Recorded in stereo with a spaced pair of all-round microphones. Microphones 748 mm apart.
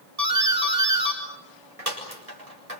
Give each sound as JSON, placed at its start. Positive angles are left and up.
{"t": 0.2, "sound": "a doorbell", "side_deg": -55, "distance_m": 6.5}